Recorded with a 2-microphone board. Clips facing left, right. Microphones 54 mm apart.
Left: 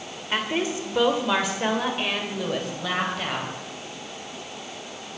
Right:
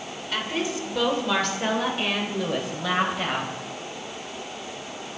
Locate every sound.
0.3 s a woman speaking: 30° left (ahead or behind), 2.5 m; by 3.5 s 10° right (ahead or behind), 4 m